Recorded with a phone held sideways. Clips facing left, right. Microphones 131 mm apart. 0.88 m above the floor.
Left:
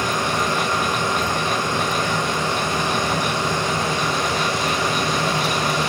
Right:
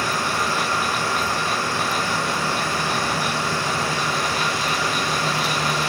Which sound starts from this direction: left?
A machine running, at 0.0 s.